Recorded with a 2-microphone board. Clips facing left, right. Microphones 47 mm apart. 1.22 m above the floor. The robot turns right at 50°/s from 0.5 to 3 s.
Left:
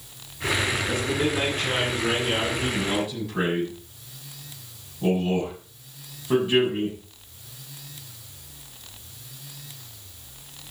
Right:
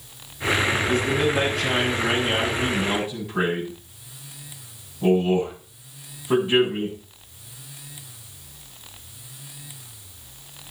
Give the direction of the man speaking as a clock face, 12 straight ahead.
4 o'clock.